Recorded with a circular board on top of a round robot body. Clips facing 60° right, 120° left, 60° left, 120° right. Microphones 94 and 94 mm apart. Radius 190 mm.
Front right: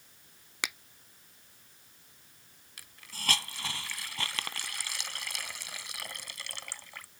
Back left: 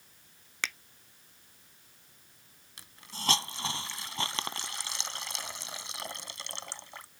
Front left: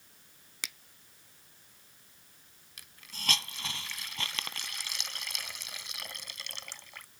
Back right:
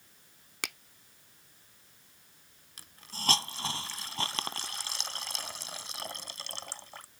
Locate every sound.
0.6 s a finger snap: 135° right
2.8 s a hiss: 175° right